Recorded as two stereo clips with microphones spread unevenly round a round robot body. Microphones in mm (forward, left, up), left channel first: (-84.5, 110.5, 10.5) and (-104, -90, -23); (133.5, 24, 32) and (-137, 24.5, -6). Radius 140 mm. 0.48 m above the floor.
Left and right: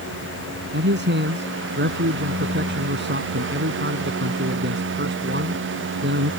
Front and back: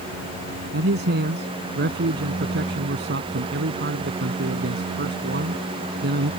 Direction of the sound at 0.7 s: 125° right.